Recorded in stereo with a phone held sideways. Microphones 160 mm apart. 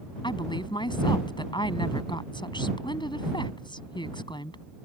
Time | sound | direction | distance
0.2 | a woman speaking | 25° left (ahead or behind) | ?